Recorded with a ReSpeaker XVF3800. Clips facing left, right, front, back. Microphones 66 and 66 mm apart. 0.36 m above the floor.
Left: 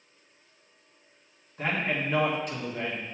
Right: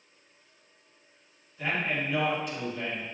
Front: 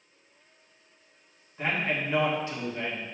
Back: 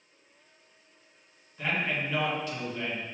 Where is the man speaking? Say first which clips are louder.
Left 1 dB, front 1 dB; 55° left, 3.5 m.